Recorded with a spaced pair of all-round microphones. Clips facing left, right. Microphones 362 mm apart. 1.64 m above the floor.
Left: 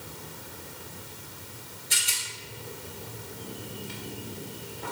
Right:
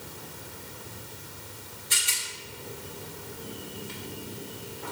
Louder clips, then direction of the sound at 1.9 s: Right 1 dB; 10° right (ahead or behind).